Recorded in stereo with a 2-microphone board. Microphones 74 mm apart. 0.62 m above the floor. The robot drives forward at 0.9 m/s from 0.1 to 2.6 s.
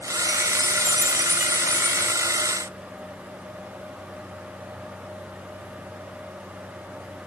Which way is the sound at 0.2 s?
Centre (ahead or behind).